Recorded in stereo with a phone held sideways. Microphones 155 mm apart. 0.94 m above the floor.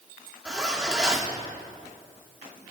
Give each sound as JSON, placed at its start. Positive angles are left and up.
{"t": 0.5, "sound": "a zipper", "side_deg": -5, "distance_m": 2.5}